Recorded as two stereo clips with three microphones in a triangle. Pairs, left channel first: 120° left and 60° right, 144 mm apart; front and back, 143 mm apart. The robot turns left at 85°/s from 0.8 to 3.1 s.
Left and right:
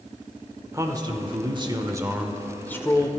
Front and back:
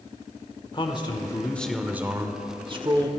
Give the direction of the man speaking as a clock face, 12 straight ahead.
12 o'clock.